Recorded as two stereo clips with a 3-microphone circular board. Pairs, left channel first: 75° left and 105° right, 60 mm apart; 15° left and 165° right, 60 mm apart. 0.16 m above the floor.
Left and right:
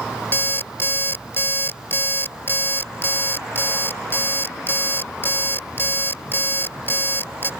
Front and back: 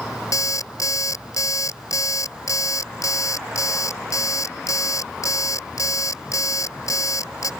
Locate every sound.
0.3 s an alarm clock: 25° left